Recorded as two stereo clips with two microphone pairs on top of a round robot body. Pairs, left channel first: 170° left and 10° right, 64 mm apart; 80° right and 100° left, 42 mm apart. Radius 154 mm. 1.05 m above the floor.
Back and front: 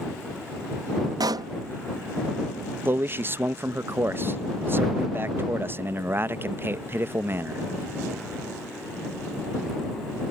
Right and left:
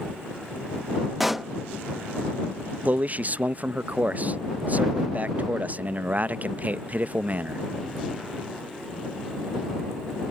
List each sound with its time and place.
1.2 s a pop: 10° left
2.9 s a man speaking: 45° left